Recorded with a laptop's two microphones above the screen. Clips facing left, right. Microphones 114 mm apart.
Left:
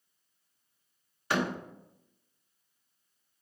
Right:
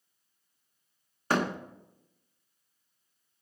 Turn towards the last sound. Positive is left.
turn(degrees=-40)  # may be behind; listen again after turning